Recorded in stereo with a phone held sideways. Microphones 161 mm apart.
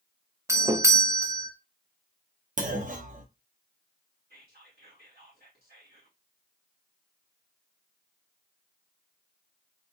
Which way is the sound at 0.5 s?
20° right (ahead or behind).